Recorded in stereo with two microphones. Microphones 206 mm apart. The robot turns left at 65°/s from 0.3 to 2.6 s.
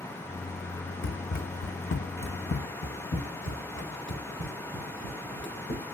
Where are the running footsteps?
75° left (ahead or behind), 0.6 m; by 5.8 s 70° left (ahead or behind), 2.5 m.